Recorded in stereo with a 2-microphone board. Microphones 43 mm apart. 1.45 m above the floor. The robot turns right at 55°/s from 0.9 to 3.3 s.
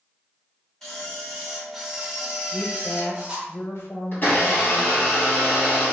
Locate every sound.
0.8 s a camera shutter: 5° left (ahead or behind), 1.2 m; by 3.5 s 20° right (ahead or behind), 1.2 m
2.5 s a woman speaking: 60° left, 0.9 m; by 5.0 s 105° left, 0.9 m
4.1 s a blender: 45° left (ahead or behind), 1.9 m